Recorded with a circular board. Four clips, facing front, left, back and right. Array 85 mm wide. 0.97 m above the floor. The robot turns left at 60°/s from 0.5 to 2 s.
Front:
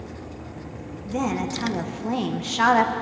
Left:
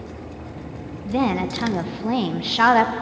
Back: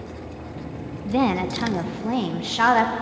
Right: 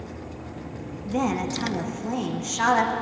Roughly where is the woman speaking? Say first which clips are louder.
Left 4 dB, back 4 dB; behind left.